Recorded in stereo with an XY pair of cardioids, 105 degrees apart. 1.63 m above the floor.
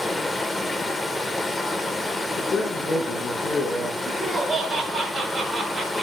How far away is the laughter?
About 5 m.